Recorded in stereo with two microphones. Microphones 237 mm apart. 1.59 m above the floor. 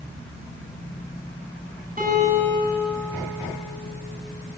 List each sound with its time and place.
2.0 s a guitar: 40° right (ahead or behind), 9.5 m